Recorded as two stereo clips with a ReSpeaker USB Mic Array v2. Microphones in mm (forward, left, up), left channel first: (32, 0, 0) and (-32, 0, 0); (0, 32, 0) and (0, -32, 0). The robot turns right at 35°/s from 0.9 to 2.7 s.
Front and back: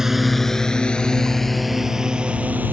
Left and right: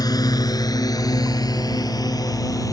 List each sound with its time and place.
0.0 s a drone: 95° left; by 2.7 s 115° left